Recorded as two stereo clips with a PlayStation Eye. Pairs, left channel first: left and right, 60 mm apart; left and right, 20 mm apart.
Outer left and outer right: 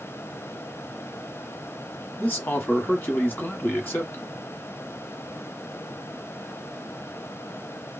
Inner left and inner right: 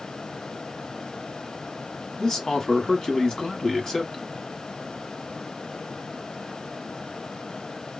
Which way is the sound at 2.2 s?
30° left (ahead or behind).